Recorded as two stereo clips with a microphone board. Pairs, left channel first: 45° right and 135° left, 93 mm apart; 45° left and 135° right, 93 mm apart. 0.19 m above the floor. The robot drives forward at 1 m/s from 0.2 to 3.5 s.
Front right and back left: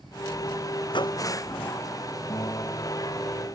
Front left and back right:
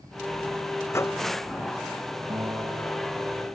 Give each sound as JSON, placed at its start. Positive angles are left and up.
{"t": 0.9, "sound": "a microwave", "azimuth_deg": -15}
{"t": 2.3, "sound": "a guitar", "azimuth_deg": -90}